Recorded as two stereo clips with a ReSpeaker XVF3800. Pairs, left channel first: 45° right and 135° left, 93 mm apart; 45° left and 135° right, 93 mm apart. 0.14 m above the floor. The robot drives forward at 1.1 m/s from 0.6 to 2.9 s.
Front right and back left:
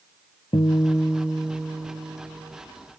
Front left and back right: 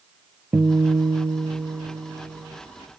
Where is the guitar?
70° right, 0.6 m; by 2.6 s 165° right, 2 m.